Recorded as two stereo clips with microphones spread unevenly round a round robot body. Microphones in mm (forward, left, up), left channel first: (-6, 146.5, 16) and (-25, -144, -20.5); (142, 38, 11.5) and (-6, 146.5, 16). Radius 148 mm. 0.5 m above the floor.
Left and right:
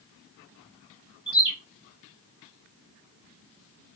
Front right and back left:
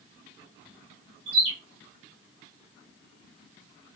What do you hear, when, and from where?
1.3 s a bird: 165° left, 1.6 m